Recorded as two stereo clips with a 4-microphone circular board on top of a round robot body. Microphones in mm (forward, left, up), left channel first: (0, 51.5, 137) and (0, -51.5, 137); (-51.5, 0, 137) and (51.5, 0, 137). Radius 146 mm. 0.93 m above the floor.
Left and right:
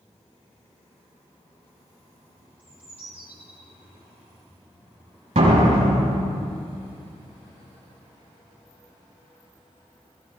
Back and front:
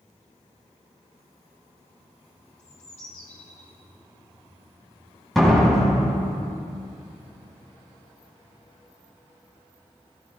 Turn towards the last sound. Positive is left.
turn(degrees=-90)